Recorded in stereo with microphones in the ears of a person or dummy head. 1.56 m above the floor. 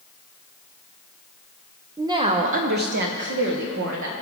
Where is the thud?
I don't hear a thud.